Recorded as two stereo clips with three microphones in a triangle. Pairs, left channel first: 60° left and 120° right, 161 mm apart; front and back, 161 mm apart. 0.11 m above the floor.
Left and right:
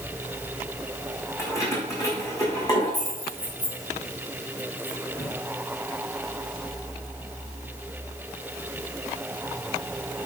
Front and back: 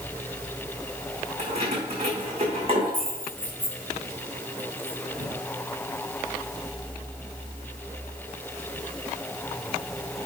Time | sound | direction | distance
1.4 | keys jangling | 130° left | 5 m